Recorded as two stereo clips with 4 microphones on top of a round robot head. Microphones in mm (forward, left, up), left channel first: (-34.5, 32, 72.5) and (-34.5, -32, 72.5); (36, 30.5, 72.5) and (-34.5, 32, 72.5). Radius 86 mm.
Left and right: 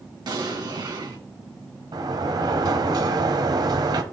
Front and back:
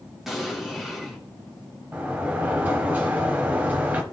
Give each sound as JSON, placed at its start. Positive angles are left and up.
{"t": 0.3, "sound": "an explosion", "azimuth_deg": -95, "distance_m": 2.0}
{"t": 1.9, "sound": "a sliding door", "azimuth_deg": -110, "distance_m": 1.0}